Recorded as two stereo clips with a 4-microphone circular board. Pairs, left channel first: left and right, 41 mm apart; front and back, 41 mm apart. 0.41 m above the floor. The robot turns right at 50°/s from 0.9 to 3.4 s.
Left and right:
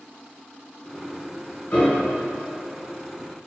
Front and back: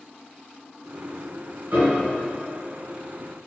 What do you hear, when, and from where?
1.7 s a piano: 145° left, 1.9 m; by 2.2 s 170° left, 1.9 m